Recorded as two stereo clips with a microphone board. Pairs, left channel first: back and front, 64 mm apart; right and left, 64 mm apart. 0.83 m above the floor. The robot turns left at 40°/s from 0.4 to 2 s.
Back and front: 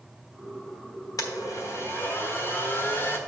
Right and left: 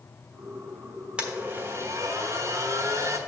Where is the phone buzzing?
I don't hear a phone buzzing.